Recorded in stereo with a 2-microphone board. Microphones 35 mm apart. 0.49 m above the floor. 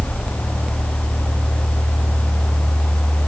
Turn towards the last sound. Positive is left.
No sound to turn to.